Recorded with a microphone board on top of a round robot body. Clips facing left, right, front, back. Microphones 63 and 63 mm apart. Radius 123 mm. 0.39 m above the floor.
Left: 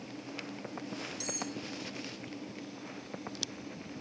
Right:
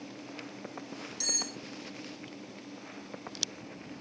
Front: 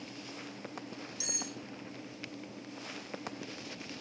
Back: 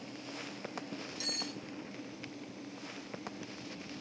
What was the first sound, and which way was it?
Cutlery clinking, 70° right.